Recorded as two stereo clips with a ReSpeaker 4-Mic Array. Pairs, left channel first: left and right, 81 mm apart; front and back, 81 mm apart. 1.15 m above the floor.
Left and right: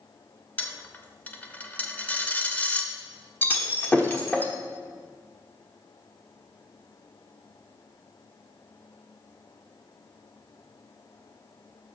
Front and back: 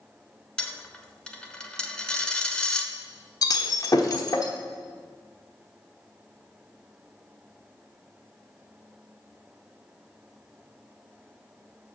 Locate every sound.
0.6 s a dropped coin: 65° left, 0.9 m
3.4 s breaking glass: 30° left, 1.1 m